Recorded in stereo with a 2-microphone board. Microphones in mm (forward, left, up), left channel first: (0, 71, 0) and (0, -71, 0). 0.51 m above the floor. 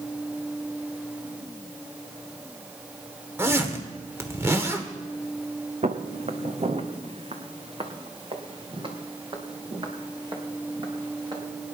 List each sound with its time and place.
3.4 s a zipper: 15° right (ahead or behind), 1.3 m
5.8 s footsteps: 55° right (ahead or behind), 1.3 m; by 11.4 s 30° right (ahead or behind), 4 m